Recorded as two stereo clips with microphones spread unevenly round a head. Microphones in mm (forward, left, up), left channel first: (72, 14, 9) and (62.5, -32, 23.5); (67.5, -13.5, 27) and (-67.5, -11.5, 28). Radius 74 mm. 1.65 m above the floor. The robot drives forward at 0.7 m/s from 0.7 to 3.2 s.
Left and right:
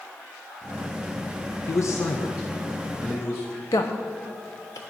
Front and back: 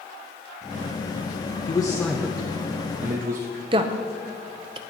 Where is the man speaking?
60° left, 0.7 m; by 3.5 s 140° left, 0.9 m.